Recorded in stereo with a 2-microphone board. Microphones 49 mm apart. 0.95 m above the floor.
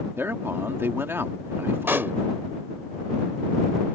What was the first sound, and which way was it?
A man speaking, 50° right (ahead or behind).